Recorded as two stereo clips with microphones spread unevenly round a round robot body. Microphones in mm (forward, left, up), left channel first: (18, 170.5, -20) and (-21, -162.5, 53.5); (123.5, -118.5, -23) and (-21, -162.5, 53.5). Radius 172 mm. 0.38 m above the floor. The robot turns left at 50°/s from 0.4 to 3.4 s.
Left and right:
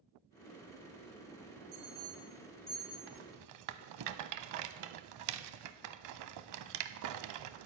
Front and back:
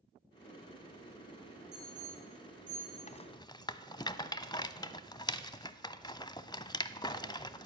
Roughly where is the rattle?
Ahead right.